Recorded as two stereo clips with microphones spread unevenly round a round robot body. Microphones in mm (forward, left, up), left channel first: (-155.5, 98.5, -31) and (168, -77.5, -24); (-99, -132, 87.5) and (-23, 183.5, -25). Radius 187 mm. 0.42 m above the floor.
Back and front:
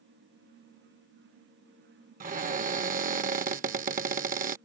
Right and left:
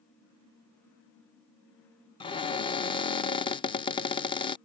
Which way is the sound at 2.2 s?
5° right.